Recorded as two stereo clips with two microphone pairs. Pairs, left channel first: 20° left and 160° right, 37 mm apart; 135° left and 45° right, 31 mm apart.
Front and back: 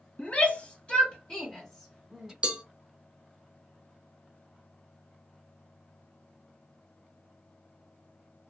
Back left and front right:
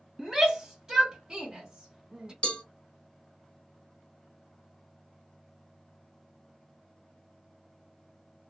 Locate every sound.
0.2 s a shout: 20° left, 1.3 m; by 2.3 s 80° right, 1.2 m
2.4 s a cowbell: 160° left, 1.2 m